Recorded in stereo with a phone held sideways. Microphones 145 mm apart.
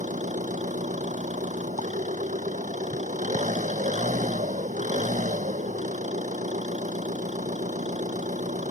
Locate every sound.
0.0 s an engine running: 60° right (ahead or behind)